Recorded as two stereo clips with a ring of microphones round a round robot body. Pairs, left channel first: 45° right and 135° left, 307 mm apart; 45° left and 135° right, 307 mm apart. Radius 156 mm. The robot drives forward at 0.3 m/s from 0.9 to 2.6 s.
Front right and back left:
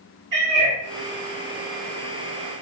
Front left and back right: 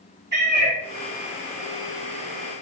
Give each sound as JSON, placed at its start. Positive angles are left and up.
{"t": 0.3, "sound": "a cat meowing", "azimuth_deg": 165, "distance_m": 1.5}